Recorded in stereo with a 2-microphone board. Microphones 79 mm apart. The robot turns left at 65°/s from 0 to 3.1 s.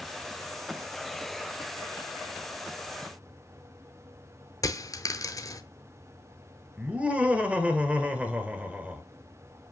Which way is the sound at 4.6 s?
45° left (ahead or behind).